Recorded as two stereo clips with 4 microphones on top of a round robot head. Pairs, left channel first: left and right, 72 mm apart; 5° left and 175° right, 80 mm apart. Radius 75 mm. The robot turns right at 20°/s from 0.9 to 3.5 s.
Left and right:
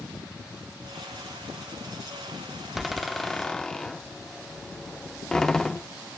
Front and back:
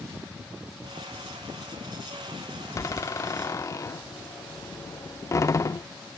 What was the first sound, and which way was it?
A door slam, 5° right.